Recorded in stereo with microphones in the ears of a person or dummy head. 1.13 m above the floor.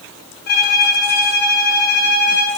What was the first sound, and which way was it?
A violin, 45° left (ahead or behind).